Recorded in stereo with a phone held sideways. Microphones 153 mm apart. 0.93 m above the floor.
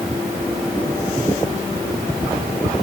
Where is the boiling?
I don't hear boiling.